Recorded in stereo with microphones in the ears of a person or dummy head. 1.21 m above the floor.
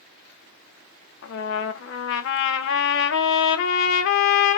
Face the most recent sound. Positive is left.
turn(degrees=65)  # may be behind; listen again after turning